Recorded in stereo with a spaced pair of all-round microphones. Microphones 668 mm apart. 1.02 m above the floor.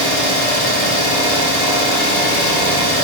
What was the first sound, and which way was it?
An engine running, 60° left (ahead or behind).